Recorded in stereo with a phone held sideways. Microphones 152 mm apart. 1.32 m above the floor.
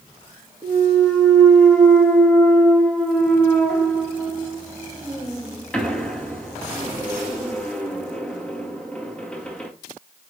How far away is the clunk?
About 2 m.